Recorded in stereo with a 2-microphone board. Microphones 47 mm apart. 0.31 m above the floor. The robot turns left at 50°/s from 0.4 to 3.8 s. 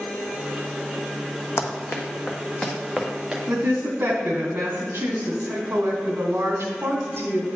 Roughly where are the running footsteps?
Left.